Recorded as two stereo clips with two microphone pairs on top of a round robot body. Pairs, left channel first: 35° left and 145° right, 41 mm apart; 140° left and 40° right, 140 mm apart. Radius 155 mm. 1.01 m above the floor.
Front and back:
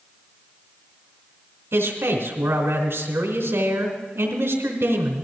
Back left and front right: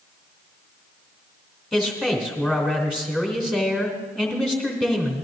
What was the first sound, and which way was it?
A man speaking, 125° right.